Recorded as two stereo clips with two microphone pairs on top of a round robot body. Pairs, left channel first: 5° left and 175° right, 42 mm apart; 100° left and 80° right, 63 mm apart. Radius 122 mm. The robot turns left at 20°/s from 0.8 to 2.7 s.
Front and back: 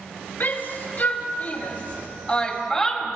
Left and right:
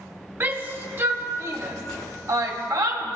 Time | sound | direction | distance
0.4 | a shout | 30° right | 2.5 m